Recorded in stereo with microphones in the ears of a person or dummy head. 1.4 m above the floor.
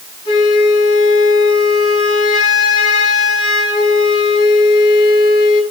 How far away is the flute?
About 6.5 m.